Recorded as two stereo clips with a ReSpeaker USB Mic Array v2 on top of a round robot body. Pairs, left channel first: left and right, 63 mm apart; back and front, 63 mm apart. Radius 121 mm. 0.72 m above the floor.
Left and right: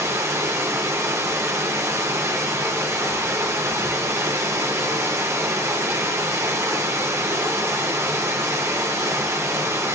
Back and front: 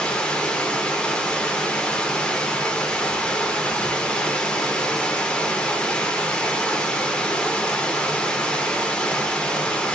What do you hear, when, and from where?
0.0 s running water: 110° right, 0.8 m